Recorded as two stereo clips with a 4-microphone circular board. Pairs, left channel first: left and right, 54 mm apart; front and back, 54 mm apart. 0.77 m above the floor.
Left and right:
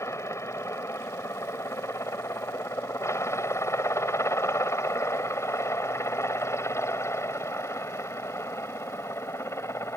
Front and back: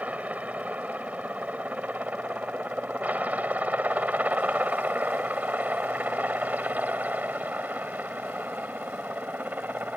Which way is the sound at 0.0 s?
120° left.